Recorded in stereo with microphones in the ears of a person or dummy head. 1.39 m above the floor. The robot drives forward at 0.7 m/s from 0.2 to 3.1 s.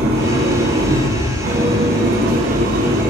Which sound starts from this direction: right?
An engine running, at 0.0 s.